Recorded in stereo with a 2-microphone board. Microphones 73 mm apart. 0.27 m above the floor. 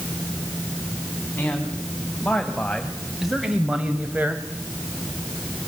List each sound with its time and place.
1.4 s a man speaking: 25° left (ahead or behind), 2.5 m; by 4.4 s 25° right (ahead or behind), 1.7 m